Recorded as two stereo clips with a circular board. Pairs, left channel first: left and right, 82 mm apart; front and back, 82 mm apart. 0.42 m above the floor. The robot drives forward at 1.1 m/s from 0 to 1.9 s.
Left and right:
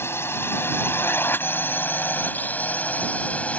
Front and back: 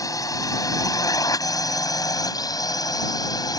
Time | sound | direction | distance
0.0 | a drone | 35° left | ?